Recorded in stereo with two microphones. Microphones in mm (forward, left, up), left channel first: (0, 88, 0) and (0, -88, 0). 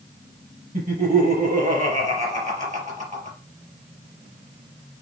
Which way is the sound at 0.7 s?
45° right (ahead or behind).